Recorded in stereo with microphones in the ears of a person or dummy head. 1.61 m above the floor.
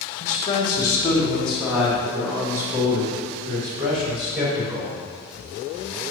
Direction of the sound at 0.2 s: 40° left (ahead or behind).